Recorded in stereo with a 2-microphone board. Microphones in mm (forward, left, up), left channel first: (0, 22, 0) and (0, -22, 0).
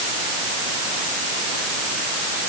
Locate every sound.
Only background noise.